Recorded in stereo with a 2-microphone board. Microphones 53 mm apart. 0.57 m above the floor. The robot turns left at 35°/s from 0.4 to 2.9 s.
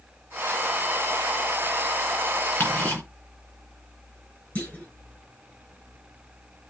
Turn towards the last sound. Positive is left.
turn(degrees=30)  # may be behind; listen again after turning